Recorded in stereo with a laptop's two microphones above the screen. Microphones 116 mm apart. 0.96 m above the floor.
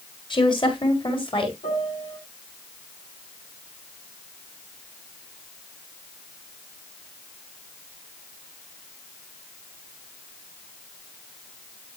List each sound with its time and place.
0.3 s a woman speaking: 45° left (ahead or behind), 1.8 m; by 1.5 s 50° left (ahead or behind), 2.5 m
1.6 s a piano: 80° left, 5 m